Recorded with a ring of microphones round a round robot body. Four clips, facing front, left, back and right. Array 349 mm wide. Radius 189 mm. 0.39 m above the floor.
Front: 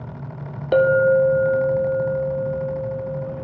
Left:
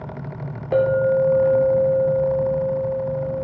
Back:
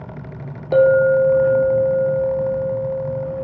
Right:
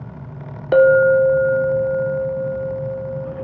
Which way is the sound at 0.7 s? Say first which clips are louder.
Right 6 dB, back 2 dB; 75° right.